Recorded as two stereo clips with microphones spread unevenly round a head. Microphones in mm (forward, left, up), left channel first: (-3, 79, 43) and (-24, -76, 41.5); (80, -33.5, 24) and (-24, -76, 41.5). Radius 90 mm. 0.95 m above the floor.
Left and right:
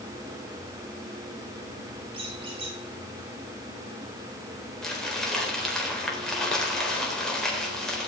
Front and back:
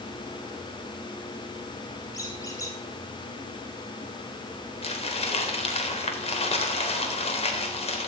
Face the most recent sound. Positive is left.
turn(degrees=-5)